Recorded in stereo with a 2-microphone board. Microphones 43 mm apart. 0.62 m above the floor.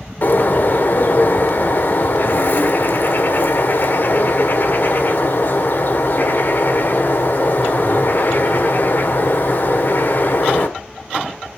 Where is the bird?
50° left (ahead or behind), 1.7 m.